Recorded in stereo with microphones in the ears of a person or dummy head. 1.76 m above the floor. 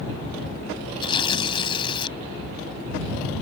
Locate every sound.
1.0 s tearing paper: 25° left (ahead or behind)